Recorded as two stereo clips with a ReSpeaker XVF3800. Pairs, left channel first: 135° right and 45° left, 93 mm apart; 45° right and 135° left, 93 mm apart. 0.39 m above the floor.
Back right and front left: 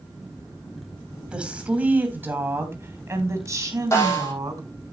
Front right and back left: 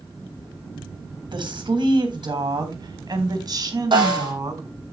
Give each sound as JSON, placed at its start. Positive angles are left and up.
{"t": 1.3, "sound": "a woman speaking", "azimuth_deg": 125, "distance_m": 3.0}
{"t": 3.9, "sound": "a snare drum", "azimuth_deg": 165, "distance_m": 9.0}